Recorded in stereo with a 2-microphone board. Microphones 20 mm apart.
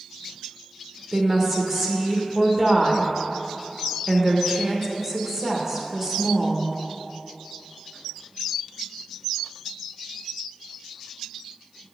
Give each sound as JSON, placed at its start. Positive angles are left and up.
{"t": 1.1, "sound": "a woman speaking", "side_deg": -15, "distance_m": 0.9}